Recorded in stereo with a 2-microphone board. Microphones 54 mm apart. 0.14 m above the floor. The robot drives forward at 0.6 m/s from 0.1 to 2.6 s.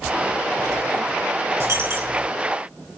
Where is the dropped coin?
55° right (ahead or behind), 5 m; by 2.3 s 50° right (ahead or behind), 5 m.